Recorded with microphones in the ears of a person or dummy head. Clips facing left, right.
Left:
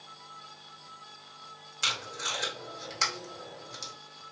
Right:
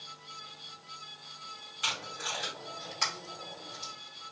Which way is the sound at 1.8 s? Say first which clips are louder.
Left 1 dB; 60° left (ahead or behind).